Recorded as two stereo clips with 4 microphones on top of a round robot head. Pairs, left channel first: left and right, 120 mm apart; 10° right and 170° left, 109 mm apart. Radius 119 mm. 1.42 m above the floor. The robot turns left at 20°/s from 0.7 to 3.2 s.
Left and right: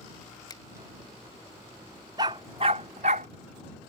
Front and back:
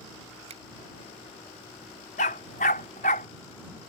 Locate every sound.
0.5 s a finger snap: 145° left
2.2 s a dog barking: 25° right; by 3.3 s 45° right